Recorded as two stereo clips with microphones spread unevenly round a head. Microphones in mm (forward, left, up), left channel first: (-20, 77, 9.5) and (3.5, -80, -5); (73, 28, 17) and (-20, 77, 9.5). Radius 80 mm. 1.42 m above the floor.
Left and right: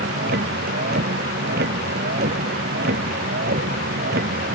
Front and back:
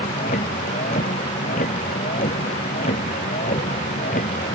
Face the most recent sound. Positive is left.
turn(degrees=-45)